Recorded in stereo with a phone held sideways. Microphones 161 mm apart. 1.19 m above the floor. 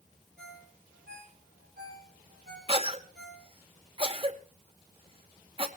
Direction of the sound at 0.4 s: 75° right (ahead or behind).